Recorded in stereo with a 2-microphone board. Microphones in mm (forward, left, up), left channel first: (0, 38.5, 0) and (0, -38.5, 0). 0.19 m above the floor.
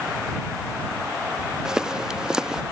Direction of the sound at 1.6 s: 10° right (ahead or behind).